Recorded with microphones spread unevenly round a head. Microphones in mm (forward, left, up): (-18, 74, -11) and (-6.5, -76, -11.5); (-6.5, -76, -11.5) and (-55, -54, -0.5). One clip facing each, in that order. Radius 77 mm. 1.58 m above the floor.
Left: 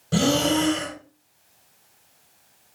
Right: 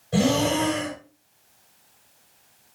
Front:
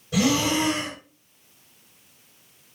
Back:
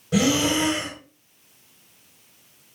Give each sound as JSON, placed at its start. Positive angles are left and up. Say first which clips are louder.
{"t": 0.1, "sound": "breathing", "louder": "even, back 1 dB", "azimuth_deg": 95, "distance_m": 3.5}